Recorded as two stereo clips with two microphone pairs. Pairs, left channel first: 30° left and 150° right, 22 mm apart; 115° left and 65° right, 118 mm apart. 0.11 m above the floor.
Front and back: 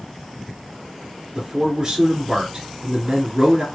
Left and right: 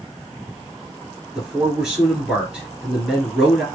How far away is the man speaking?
About 2 m.